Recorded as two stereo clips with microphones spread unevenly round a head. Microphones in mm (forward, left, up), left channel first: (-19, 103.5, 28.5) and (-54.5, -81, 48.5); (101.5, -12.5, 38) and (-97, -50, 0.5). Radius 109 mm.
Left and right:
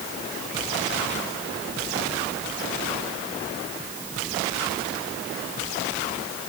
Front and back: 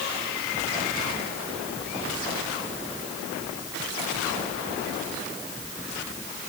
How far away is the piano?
I don't hear a piano.